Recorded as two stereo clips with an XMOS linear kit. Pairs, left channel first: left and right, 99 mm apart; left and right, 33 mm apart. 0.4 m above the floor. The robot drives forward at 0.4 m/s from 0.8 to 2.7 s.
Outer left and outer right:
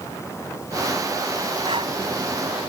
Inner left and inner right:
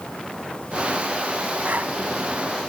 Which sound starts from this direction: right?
Breathing, at 1.6 s.